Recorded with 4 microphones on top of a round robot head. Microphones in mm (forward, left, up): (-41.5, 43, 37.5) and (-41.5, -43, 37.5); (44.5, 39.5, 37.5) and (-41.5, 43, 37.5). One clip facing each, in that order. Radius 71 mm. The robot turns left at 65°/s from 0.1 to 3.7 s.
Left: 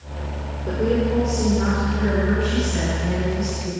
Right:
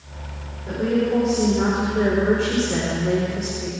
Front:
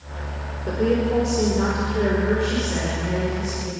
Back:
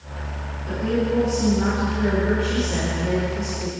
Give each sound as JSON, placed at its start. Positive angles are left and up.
{"t": 0.7, "sound": "a woman speaking", "azimuth_deg": 40, "distance_m": 6.0}